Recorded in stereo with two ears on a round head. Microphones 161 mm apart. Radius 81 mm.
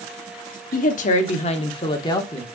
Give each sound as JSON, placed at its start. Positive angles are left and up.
{"t": 0.7, "sound": "a woman speaking", "side_deg": 50, "distance_m": 1.2}